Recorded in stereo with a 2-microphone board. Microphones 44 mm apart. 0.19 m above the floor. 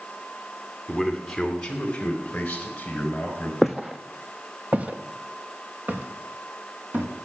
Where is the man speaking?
5° right (ahead or behind), 1.7 m; by 3.5 s 35° left (ahead or behind), 3.5 m.